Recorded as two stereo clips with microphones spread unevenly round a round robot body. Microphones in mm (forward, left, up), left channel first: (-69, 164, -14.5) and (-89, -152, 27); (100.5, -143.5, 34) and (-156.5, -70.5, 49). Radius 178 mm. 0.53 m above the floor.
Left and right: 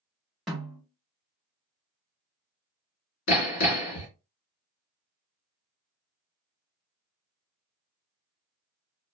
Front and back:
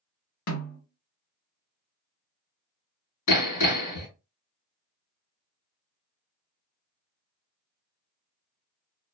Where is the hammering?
25° left, 1.7 m.